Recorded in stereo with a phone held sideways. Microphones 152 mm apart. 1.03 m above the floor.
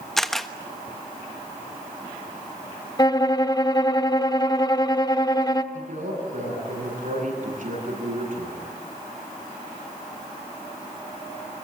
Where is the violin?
25° left (ahead or behind), 0.9 m.